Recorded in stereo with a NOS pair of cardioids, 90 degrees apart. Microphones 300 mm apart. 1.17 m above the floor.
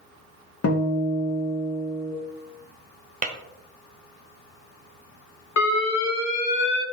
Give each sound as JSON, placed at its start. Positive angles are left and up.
{"t": 0.6, "sound": "a guitar", "azimuth_deg": 50, "distance_m": 1.1}
{"t": 3.2, "sound": "tapping", "azimuth_deg": -25, "distance_m": 0.7}
{"t": 5.6, "sound": "an alarm", "azimuth_deg": 65, "distance_m": 1.0}